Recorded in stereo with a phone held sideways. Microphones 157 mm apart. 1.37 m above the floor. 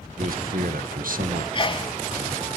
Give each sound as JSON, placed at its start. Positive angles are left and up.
{"t": 0.2, "sound": "a man speaking", "side_deg": -70, "distance_m": 0.6}
{"t": 1.5, "sound": "a sneeze", "side_deg": 35, "distance_m": 0.6}